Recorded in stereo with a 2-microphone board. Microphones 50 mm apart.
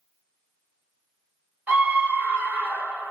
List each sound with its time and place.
1.7 s a scream: 35° right (ahead or behind), 1.5 m